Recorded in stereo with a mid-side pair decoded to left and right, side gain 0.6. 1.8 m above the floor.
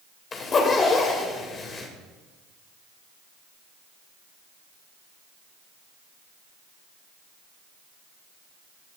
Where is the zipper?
35° left, 2.5 m.